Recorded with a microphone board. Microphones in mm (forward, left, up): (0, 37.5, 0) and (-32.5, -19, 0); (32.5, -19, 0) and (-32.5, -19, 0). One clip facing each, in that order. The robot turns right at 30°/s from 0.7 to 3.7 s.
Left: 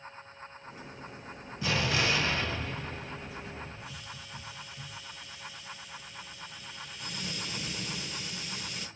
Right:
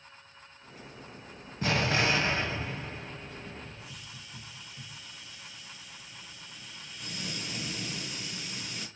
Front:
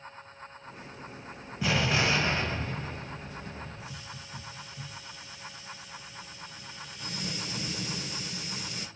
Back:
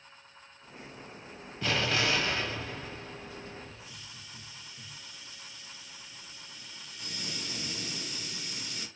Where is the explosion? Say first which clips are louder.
Right 2 dB, front 2 dB; 80° right, 1.1 m; by 3.9 s 15° right, 1.1 m.